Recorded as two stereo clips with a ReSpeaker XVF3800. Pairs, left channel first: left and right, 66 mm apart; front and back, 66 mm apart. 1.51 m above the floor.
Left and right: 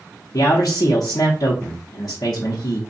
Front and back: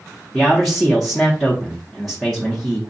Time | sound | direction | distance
0.3 | a man speaking | 80° left | 0.7 m